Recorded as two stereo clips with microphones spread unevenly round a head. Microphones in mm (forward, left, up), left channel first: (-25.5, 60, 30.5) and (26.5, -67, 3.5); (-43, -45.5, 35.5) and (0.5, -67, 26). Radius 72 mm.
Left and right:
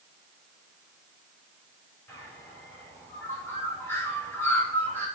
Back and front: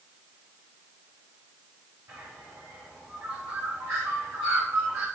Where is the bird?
35° left, 6.5 m.